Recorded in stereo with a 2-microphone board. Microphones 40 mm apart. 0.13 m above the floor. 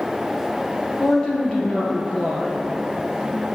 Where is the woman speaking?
25° left (ahead or behind), 3 m.